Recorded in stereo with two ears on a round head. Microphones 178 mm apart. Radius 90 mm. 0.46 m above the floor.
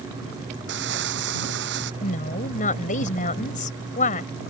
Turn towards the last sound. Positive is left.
turn(degrees=45)  # may be behind; listen again after turning